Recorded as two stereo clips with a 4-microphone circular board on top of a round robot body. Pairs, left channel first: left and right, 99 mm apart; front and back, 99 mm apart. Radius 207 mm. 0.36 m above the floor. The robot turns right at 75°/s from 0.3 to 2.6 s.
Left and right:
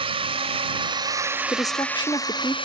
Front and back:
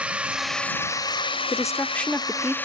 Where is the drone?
105° right; by 2.6 s 70° left.